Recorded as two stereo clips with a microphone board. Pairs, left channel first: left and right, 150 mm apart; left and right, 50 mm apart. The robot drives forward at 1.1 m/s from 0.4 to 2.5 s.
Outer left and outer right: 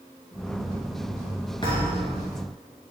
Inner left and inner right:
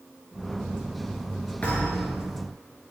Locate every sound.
1.6 s a thud: 35° left (ahead or behind), 4 m; by 2.2 s 30° left (ahead or behind), 4.5 m